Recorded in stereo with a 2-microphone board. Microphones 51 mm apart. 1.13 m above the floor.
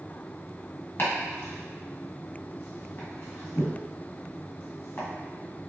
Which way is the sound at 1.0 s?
45° left (ahead or behind).